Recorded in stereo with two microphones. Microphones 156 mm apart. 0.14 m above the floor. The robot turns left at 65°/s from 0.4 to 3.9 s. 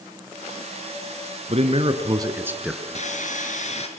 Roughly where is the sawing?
Behind left.